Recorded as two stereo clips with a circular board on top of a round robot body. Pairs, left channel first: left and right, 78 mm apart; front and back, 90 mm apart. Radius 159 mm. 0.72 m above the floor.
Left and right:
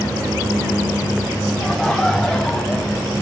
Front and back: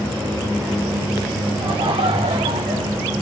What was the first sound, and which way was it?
Laughter, 175° left.